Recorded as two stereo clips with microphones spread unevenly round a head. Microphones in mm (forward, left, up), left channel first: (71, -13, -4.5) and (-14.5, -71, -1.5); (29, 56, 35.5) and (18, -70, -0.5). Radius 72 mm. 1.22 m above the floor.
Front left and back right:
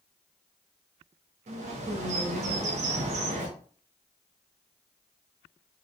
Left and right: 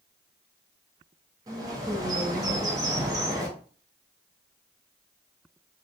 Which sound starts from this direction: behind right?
A bird, at 1.5 s.